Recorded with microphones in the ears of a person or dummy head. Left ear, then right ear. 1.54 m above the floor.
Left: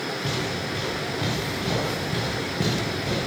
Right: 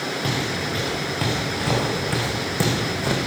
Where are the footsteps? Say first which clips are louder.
Right 3 dB; 40° right (ahead or behind), 6 m; by 3.2 s 60° right (ahead or behind), 3.5 m.